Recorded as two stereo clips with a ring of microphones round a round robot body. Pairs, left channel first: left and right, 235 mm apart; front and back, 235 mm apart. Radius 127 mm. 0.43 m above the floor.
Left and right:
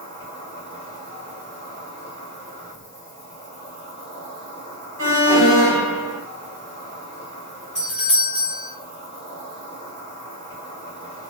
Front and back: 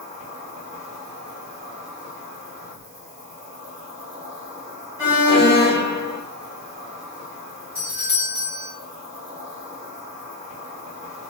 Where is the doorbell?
75° left, 1.5 m.